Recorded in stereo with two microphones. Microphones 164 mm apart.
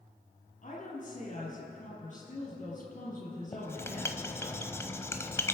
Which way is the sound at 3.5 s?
15° left (ahead or behind).